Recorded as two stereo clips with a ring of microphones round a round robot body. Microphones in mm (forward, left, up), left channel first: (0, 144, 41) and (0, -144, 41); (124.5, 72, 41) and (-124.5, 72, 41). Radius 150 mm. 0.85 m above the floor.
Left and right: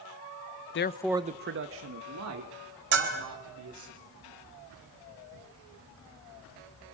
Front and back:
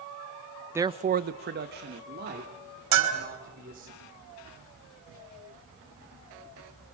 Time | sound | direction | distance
0.8 | a man speaking | 105° left | 0.7 m
2.9 | a bell | 145° right | 3.5 m